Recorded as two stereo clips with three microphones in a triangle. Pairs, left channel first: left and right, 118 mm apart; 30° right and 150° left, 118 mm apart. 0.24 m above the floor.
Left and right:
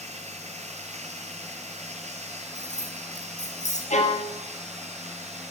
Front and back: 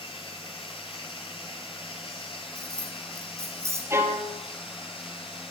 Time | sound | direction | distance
0.0 | running water | 75° right | 5.5 m
2.5 | keys jangling | 85° left | 8 m
3.9 | a violin | 80° left | 4 m